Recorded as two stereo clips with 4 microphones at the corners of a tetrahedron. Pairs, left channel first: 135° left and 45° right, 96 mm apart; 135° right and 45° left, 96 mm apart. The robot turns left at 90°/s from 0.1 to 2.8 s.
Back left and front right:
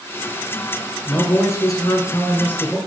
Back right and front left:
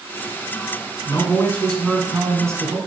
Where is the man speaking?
150° right, 1.8 m; by 2.8 s 55° left, 1.8 m.